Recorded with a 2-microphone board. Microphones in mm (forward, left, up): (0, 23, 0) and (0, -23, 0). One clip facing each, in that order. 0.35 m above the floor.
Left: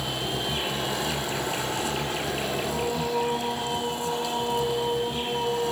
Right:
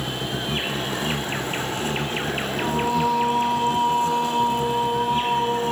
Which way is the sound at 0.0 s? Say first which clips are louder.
Right 2 dB; 45° right (ahead or behind).